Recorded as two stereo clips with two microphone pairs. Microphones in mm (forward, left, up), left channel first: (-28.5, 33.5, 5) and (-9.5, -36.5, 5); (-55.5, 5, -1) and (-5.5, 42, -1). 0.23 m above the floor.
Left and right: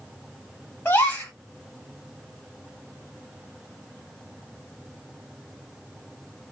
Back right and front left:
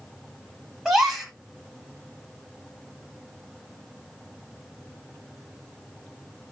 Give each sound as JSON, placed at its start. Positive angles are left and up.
{"t": 0.8, "sound": "a gasp", "azimuth_deg": 120, "distance_m": 1.4}